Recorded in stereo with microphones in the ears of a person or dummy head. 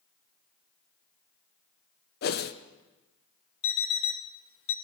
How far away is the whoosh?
About 0.6 m.